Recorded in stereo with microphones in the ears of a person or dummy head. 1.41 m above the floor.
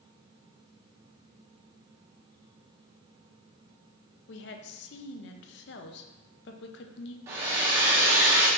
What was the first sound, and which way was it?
A woman speaking, 60° left (ahead or behind).